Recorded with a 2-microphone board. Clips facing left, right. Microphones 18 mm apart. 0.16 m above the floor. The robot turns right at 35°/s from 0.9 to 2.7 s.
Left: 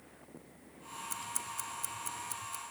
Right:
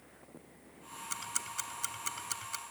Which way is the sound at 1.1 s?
35° right (ahead or behind).